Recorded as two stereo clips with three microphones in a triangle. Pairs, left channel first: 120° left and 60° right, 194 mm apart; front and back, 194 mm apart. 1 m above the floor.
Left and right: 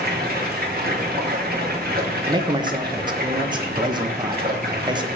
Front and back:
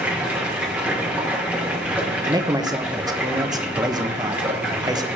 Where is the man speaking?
115° right, 0.7 m.